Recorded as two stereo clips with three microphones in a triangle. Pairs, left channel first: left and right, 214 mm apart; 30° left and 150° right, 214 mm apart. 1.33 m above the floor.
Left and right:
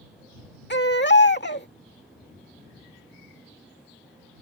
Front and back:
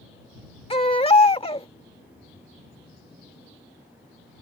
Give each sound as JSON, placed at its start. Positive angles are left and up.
{"t": 0.7, "sound": "a baby crying", "azimuth_deg": 85}